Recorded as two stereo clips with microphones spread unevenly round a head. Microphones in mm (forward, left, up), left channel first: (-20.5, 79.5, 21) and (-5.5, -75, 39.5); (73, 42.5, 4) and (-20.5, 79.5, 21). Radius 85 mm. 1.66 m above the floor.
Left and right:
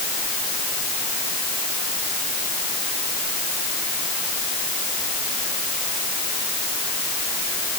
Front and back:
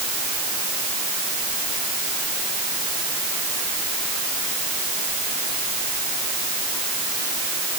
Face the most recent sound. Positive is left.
No sound to turn to.